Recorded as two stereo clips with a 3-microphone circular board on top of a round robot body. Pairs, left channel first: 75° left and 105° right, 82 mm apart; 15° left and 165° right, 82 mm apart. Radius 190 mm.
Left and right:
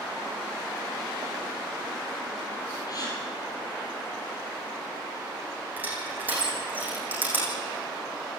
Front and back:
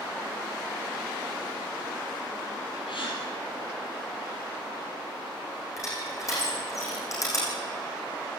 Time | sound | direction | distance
2.9 | a gasp | 30° left | 5.5 m
5.8 | crushing | 40° right | 6.5 m